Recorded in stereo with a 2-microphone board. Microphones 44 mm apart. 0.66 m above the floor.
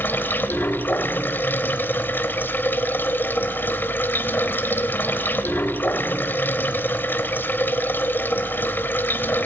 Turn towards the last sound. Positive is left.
turn(degrees=50)  # may be behind; listen again after turning